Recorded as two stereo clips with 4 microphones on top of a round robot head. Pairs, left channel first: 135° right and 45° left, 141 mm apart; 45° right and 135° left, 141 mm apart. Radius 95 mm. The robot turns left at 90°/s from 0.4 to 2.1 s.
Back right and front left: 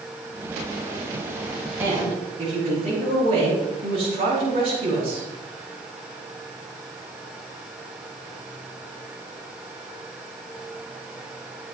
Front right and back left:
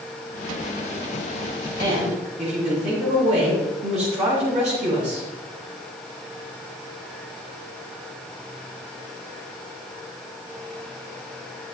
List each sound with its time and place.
1.8 s a woman speaking: 125° left, 5.5 m; by 5.3 s 95° left, 5.5 m